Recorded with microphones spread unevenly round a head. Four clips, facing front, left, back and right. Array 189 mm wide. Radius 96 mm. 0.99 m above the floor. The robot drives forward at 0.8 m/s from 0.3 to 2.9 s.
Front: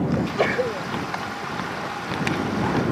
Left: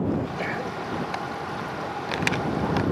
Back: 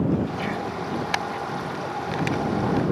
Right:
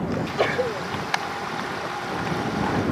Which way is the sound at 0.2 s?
35° right.